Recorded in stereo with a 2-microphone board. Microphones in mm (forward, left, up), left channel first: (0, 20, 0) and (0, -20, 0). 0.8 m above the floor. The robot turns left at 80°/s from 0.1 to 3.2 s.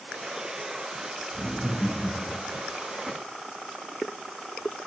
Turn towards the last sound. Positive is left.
turn(degrees=45)